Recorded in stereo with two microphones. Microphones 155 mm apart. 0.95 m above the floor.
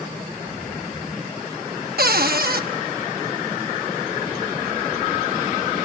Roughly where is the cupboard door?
Right.